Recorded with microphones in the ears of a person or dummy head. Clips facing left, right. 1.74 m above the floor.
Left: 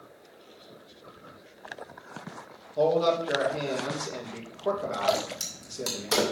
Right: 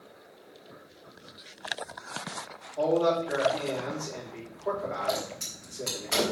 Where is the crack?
60° left (ahead or behind), 2.5 m.